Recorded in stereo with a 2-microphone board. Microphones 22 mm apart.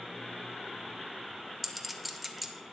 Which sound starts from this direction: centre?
A clink, at 1.6 s.